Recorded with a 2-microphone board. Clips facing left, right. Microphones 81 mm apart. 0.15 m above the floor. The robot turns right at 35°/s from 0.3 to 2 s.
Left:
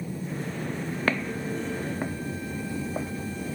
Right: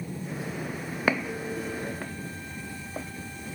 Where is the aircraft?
5° left (ahead or behind); by 3.6 s 60° left (ahead or behind).